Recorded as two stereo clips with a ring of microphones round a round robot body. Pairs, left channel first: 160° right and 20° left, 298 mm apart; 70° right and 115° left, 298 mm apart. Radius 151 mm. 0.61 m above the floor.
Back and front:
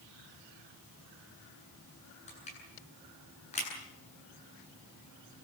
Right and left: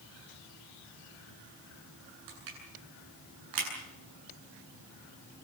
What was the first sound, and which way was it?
Crushing, 135° left.